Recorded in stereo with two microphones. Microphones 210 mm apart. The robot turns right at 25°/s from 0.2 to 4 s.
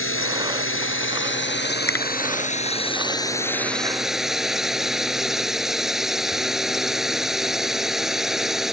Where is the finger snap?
10° left (ahead or behind).